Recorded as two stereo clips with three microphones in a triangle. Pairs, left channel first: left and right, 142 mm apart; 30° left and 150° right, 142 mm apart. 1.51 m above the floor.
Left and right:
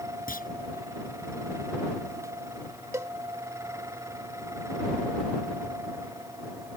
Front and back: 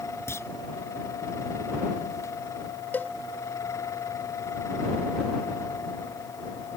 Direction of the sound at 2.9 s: 35° right.